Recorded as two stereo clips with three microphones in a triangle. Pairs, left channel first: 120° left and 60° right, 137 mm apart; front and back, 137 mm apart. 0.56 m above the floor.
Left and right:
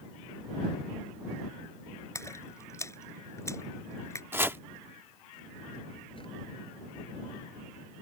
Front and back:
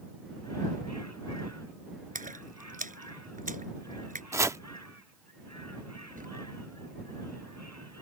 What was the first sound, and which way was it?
A splash, 170° right.